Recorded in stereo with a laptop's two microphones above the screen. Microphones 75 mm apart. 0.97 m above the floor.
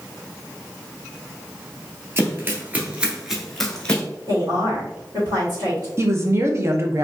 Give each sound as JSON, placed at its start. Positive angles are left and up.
{"t": 2.2, "sound": "running footsteps", "side_deg": -30, "distance_m": 1.2}
{"t": 4.3, "sound": "a woman speaking", "side_deg": -50, "distance_m": 1.8}
{"t": 6.0, "sound": "a woman speaking", "side_deg": -35, "distance_m": 0.6}